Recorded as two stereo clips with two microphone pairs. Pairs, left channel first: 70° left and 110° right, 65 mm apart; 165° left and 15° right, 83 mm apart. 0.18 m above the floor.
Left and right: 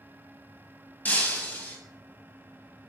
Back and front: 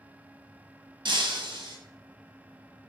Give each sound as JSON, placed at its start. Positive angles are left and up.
{"t": 1.1, "sound": "breaking glass", "azimuth_deg": 5, "distance_m": 0.7}